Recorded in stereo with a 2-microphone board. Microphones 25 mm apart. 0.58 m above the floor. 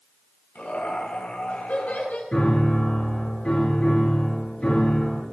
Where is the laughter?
80° left, 9 m; by 2.2 s 85° left, 9 m.